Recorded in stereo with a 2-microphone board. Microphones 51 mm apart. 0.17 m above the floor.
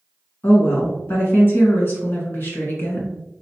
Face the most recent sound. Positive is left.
turn(degrees=45)  # may be behind; listen again after turning